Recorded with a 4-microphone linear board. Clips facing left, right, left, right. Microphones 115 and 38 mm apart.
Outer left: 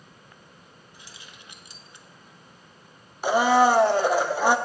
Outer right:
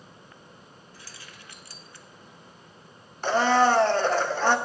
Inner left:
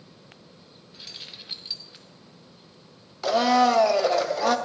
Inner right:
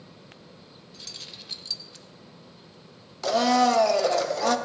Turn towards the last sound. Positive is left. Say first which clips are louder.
# outer left 2 dB, inner left 1 dB
turn(degrees=10)  # may be behind; listen again after turning